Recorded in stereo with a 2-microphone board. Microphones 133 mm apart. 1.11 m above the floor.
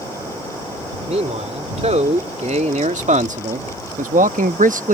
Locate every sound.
1.1 s a man speaking: 55° right (ahead or behind); by 5.0 s 75° right (ahead or behind)